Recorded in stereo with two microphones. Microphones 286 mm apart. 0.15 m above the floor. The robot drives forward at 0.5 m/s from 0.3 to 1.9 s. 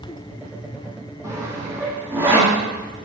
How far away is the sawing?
About 1.7 m.